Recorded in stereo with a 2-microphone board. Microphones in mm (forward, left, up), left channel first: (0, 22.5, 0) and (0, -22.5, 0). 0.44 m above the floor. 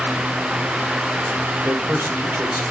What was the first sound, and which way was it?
A man speaking, 55° right (ahead or behind).